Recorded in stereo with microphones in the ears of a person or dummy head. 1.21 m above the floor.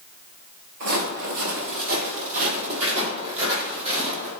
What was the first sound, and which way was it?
Footsteps, 45° right (ahead or behind).